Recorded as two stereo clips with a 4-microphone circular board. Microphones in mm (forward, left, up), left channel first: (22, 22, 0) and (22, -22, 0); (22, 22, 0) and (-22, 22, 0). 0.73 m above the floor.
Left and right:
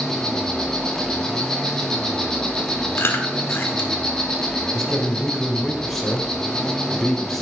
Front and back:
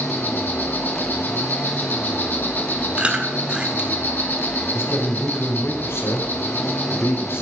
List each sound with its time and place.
0.0 s an insect: 15° left, 2 m
3.0 s chewing: 115° left, 1.4 m
4.7 s a man speaking: 5° left, 3 m